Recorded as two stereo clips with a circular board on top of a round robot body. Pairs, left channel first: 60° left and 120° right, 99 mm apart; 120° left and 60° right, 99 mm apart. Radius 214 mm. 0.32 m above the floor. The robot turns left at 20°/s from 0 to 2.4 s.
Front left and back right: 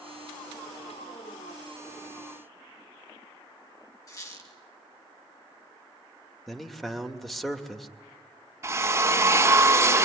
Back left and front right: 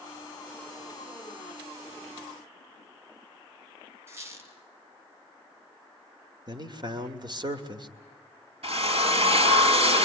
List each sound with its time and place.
4.1 s a squeak: 5° left, 2.5 m
6.5 s a man speaking: 25° right, 2.5 m
8.6 s a drill: 55° right, 4.5 m